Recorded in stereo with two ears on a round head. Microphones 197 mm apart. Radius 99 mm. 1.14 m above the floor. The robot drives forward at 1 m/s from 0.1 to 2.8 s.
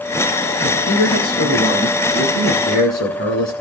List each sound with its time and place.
0.6 s a man speaking: 55° left (ahead or behind), 9.5 m; by 3.5 s 45° left (ahead or behind), 10.5 m